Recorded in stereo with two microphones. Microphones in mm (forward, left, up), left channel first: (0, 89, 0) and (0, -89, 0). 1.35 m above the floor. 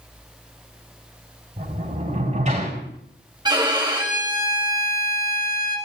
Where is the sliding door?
45° right (ahead or behind), 4.5 m.